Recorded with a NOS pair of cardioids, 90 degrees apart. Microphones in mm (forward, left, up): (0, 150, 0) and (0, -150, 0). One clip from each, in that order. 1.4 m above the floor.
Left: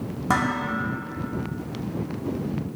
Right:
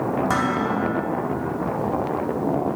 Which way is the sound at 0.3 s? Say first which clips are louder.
Left 3 dB; 10° left.